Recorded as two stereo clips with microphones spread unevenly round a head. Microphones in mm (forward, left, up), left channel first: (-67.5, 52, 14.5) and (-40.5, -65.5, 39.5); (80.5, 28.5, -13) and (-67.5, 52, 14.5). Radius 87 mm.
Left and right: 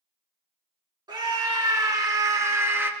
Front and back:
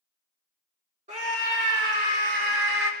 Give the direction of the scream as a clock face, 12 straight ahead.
4 o'clock.